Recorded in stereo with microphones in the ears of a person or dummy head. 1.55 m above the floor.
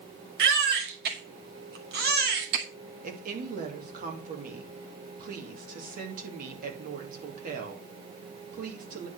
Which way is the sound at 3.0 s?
50° right (ahead or behind).